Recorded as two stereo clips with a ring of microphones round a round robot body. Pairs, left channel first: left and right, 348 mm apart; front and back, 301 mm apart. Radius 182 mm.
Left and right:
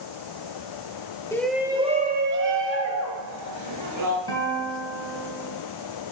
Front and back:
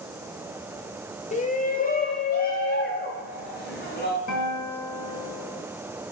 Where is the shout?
20° left, 1.0 m; by 4.2 s 60° right, 2.5 m.